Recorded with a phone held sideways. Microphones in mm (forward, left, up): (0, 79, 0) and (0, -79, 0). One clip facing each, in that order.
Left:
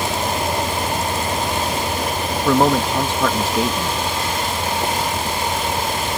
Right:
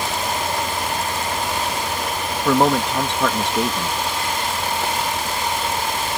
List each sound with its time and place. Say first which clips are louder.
0.0 s a fan: left 3 dB; 20° left (ahead or behind)
2.5 s a man speaking: left 1 dB; centre (ahead or behind)